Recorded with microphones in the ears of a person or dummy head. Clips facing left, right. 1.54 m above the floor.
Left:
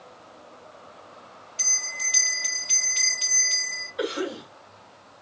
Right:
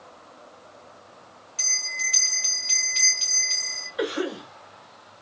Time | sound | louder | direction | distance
1.6 | a bell | right 1 dB | 35° right (ahead or behind) | 3 m
4.0 | a cough | right 1 dB | 5° right (ahead or behind) | 1.4 m